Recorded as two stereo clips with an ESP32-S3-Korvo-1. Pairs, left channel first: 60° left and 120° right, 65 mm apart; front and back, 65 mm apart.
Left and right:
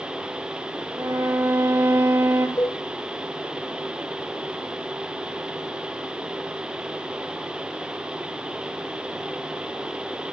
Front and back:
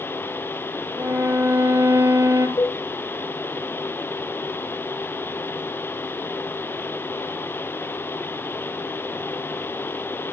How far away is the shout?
I don't hear a shout.